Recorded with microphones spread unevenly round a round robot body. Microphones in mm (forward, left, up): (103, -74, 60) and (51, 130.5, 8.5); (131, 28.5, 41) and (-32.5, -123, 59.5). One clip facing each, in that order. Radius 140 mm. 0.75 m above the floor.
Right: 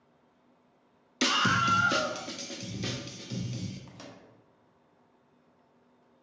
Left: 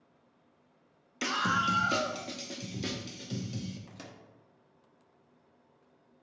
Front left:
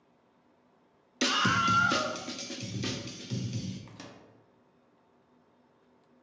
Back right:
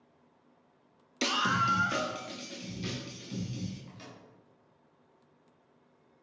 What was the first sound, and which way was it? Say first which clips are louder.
A scream: right 4 dB, front left 3 dB; 30° right.